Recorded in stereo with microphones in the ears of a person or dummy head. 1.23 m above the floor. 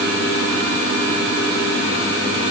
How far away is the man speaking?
No man speaking in this recording.